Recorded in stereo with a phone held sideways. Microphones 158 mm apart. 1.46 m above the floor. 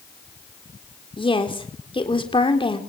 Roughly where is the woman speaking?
Left.